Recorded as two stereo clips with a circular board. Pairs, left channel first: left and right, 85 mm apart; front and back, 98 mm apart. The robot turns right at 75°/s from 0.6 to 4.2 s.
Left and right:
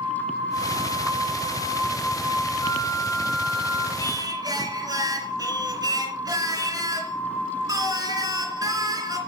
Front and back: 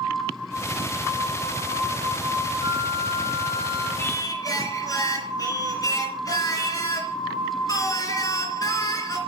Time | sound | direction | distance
2.6 | a flute | 130° left | 3 m
4.0 | singing | 65° right | 2.5 m